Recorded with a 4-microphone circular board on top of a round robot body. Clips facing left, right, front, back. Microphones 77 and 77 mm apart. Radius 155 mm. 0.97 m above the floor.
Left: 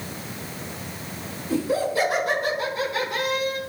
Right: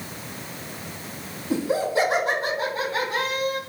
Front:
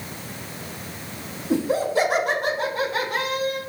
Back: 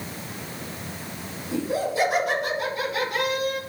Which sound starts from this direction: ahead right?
Laughter, at 1.5 s.